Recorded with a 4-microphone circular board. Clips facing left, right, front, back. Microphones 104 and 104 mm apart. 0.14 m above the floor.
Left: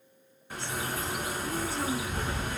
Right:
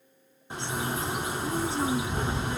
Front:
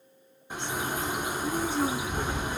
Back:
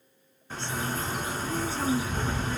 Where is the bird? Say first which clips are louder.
Right 3 dB, even; 55° right, 0.7 m.